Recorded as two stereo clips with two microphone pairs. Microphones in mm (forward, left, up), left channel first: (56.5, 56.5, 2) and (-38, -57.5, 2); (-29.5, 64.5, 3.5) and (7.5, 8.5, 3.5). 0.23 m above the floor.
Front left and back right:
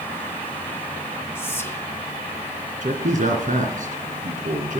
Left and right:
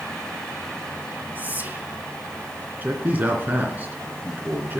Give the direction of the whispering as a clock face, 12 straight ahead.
12 o'clock.